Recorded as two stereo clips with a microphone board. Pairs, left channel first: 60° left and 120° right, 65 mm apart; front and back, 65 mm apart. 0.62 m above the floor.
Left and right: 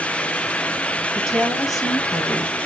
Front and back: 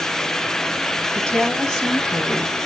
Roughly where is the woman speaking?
Left.